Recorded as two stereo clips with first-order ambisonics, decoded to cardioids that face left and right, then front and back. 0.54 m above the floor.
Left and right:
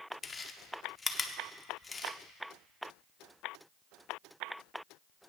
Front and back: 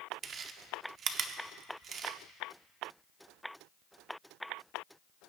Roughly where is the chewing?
Behind left.